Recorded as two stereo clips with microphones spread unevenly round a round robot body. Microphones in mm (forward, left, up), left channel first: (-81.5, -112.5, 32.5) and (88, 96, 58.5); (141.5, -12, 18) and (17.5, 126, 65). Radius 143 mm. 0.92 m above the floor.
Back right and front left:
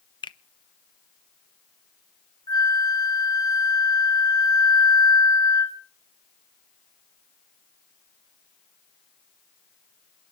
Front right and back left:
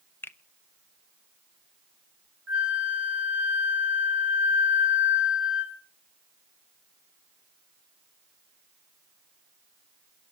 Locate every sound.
0.2 s a finger snap: 85° right, 0.7 m
2.5 s a flute: 155° left, 2 m